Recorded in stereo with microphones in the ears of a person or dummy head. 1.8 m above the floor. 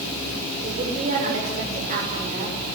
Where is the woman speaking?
40° right (ahead or behind), 7 m.